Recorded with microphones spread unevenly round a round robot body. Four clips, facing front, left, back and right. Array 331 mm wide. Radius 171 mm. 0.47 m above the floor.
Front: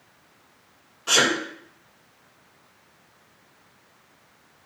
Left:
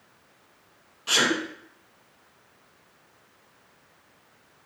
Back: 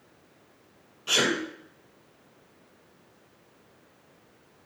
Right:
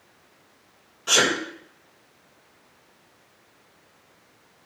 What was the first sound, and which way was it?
A sneeze, 30° right.